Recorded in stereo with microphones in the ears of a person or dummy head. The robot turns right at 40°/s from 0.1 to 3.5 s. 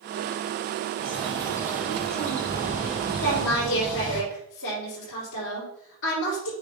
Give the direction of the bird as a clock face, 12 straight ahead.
1 o'clock.